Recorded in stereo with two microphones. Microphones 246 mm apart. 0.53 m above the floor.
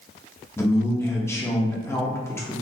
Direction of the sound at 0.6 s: 10° left (ahead or behind).